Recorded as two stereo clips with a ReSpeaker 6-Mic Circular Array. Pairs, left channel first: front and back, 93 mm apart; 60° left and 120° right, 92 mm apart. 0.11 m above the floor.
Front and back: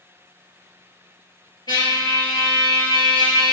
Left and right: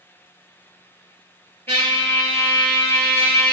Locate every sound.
1.7 s a trumpet: straight ahead, 1.4 m